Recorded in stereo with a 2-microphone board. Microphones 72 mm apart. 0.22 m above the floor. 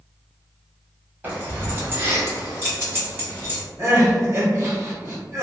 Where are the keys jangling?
25° right (ahead or behind), 1.0 m; by 3.6 s 30° right (ahead or behind), 1.8 m.